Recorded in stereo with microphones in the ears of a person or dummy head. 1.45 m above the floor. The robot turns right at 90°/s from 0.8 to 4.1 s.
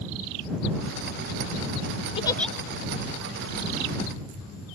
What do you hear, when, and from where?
2.2 s a giggle: 35° left (ahead or behind); by 2.5 s centre (ahead or behind)